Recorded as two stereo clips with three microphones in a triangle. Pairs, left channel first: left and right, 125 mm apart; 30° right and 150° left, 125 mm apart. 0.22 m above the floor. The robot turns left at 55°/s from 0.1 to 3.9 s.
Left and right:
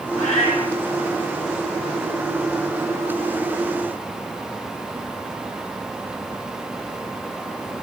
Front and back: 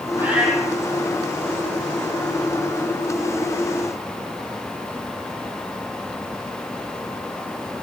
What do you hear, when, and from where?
0.1 s a cat meowing: 80° left, 3 m; by 0.7 s 50° left, 3 m